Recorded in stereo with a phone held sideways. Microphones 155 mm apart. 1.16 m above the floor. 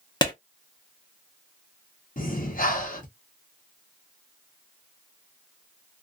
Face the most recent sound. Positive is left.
turn(degrees=60)  # may be behind; listen again after turning